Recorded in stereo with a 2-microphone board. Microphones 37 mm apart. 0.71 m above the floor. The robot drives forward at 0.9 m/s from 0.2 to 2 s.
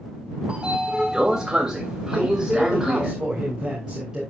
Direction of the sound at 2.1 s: 20° right (ahead or behind).